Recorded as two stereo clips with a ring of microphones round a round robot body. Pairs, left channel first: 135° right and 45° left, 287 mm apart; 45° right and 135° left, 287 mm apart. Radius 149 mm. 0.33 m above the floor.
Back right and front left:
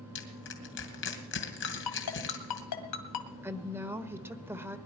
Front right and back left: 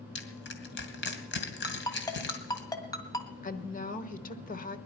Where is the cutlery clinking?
No cutlery clinking in this recording.